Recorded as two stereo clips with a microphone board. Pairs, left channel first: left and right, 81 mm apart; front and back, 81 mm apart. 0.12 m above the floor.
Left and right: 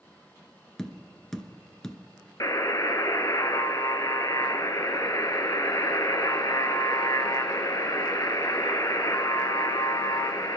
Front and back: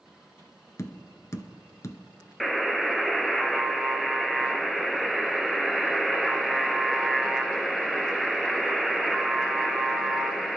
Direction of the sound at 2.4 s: 90° left.